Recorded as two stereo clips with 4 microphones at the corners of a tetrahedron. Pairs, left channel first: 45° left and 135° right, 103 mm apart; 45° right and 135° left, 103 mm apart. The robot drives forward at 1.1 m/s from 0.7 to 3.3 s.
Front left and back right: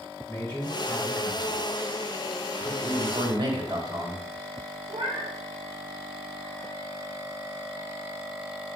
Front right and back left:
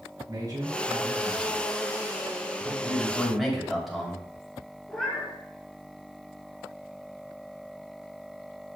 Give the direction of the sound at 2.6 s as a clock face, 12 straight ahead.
4 o'clock.